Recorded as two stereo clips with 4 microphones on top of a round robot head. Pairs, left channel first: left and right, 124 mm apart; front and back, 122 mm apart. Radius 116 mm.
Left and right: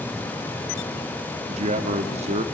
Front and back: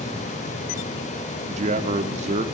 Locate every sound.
1.5 s a man speaking: 135° right, 2.0 m